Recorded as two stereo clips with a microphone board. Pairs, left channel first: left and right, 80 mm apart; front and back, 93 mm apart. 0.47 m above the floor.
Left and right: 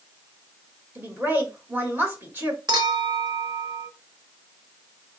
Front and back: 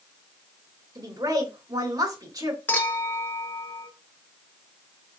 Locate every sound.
0.9 s a woman speaking: 145° right, 2 m
2.7 s a clink: 70° right, 1.1 m